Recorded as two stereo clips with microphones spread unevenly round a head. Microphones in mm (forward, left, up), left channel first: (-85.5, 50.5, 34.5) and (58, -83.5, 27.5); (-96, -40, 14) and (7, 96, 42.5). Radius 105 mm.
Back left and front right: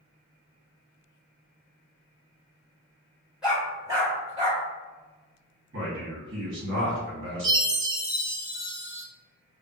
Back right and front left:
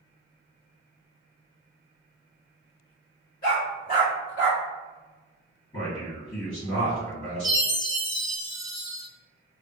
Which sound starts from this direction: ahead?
A chime, at 7.4 s.